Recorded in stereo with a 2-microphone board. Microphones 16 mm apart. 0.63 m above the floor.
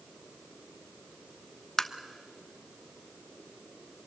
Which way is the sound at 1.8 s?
25° left (ahead or behind).